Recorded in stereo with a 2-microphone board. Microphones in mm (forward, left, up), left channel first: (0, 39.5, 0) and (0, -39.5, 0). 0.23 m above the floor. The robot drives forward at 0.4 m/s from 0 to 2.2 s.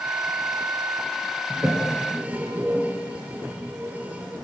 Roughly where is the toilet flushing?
Right.